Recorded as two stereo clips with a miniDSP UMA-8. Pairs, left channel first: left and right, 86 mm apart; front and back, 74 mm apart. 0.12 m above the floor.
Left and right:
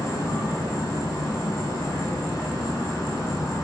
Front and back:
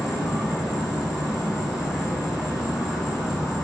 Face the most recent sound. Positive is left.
turn(degrees=90)